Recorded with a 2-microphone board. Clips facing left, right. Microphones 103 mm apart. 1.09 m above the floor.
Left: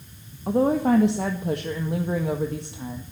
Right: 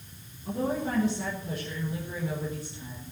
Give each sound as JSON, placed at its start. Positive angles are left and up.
{"t": 0.5, "sound": "a woman speaking", "side_deg": 65, "distance_m": 1.6}